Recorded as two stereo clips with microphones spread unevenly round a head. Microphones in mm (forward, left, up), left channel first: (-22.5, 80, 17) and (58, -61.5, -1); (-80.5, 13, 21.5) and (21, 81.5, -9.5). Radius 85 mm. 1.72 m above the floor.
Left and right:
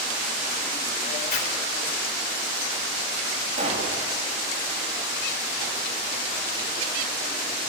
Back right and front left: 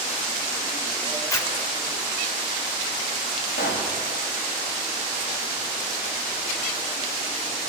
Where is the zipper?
155° left, 3.5 m.